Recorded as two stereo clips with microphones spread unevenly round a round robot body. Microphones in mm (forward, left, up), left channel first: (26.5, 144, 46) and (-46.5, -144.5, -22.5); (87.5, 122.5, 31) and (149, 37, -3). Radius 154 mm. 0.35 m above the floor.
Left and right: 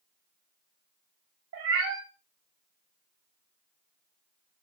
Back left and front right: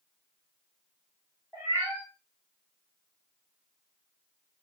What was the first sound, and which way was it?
A cat meowing, 140° right.